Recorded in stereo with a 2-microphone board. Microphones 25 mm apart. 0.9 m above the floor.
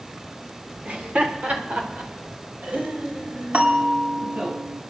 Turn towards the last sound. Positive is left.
turn(degrees=-70)  # may be behind; listen again after turning